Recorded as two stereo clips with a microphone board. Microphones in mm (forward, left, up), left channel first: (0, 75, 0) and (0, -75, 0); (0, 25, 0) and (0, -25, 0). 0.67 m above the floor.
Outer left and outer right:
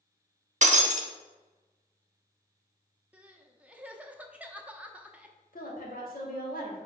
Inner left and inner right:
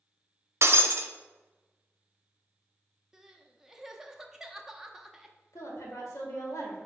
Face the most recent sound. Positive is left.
turn(degrees=75)  # may be behind; listen again after turning